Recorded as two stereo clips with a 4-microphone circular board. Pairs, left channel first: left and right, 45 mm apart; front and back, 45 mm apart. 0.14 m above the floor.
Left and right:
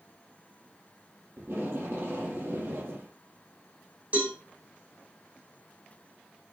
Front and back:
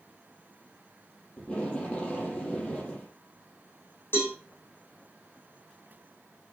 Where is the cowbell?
35° right, 5 m.